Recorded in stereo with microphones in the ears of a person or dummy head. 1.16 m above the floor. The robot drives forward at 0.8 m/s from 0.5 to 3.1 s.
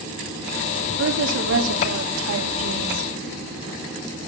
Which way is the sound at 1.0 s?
65° right (ahead or behind).